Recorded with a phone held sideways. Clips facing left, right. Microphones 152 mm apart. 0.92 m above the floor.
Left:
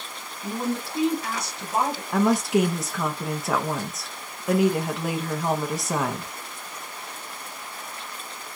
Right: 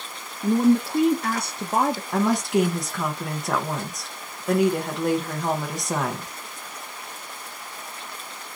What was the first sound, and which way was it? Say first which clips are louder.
A woman speaking: right 10 dB; 55° right (ahead or behind).